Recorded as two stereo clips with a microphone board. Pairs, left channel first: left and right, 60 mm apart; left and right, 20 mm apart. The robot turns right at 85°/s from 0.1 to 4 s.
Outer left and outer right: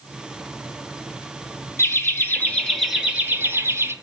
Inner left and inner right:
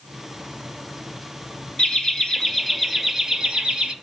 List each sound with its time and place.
1.8 s laughter: 95° left, 1.8 m; by 3.9 s 85° right, 1.8 m